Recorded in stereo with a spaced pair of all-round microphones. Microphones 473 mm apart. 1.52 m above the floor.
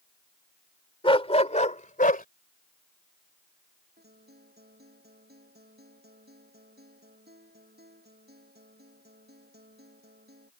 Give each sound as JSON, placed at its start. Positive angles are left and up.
{"t": 1.0, "sound": "a dog barking", "side_deg": 10}
{"t": 4.0, "sound": "a guitar", "side_deg": -20}